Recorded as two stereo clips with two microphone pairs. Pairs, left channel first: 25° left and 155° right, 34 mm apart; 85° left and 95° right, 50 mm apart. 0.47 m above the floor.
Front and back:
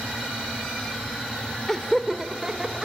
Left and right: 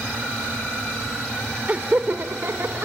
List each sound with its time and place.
1.7 s laughter: 45° right, 1.1 m; by 2.9 s 90° right, 1.7 m